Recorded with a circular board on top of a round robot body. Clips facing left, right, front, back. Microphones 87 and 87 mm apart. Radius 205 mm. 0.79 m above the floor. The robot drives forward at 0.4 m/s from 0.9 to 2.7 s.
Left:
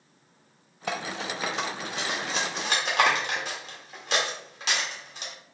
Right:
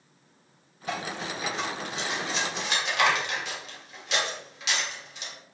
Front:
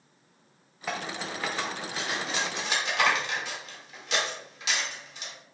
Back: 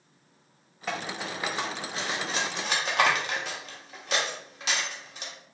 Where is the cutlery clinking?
85° left, 0.7 m; by 5.3 s 135° left, 1.0 m.